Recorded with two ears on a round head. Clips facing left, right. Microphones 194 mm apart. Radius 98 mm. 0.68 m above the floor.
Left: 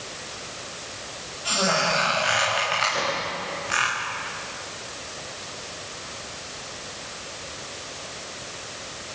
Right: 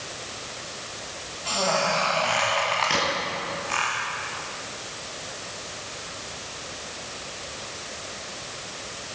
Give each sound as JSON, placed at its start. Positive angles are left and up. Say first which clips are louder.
{"t": 1.4, "sound": "a squeak", "louder": "even", "side_deg": 15, "distance_m": 7.0}
{"t": 2.9, "sound": "a crack", "louder": "right 1 dB", "side_deg": -90, "distance_m": 6.0}